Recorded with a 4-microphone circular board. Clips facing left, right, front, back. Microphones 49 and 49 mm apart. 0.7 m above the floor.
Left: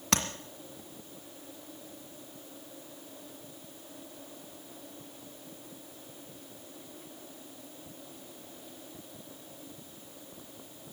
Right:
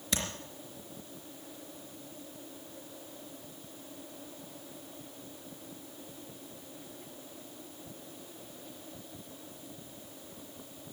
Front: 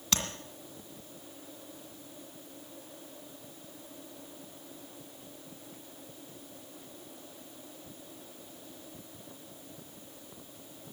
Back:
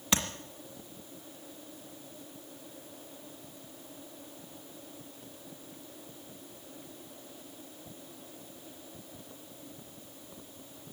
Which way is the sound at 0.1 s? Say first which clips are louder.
Left 5 dB, back 3 dB; 105° left.